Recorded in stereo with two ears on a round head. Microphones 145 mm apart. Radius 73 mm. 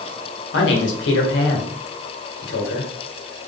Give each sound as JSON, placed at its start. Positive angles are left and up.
{"t": 0.5, "sound": "a man speaking", "side_deg": 80, "distance_m": 1.4}